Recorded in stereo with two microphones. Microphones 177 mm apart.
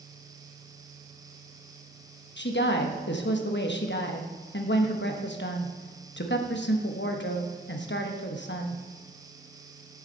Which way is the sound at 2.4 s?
85° left.